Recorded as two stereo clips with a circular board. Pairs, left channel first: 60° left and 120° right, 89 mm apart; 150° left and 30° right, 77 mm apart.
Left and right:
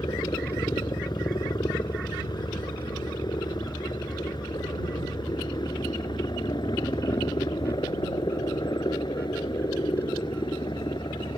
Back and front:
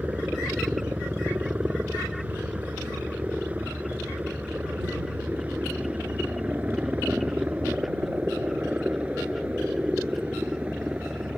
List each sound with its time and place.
0.0 s a helicopter: 35° left; by 11.4 s 40° left